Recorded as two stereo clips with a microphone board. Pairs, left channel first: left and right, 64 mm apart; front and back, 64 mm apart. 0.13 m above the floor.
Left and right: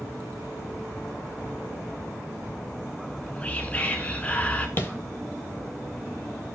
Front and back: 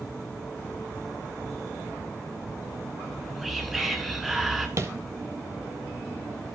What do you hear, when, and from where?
3.0 s whispering: 95° left, 1.1 m
4.8 s tapping: 145° left, 1.0 m